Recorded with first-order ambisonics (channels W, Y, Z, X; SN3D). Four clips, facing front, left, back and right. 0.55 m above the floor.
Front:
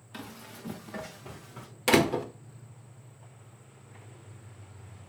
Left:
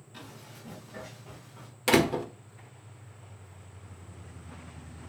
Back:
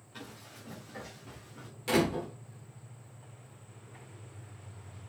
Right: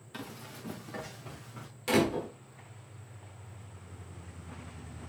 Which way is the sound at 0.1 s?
30° right.